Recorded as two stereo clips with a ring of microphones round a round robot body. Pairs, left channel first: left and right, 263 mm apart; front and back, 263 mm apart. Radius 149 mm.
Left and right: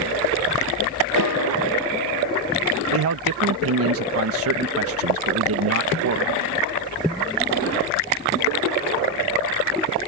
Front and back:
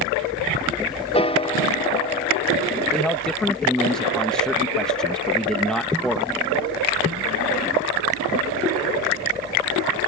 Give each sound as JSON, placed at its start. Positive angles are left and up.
{"t": 1.1, "sound": "a piano", "azimuth_deg": 70}
{"t": 2.9, "sound": "a man speaking", "azimuth_deg": -85}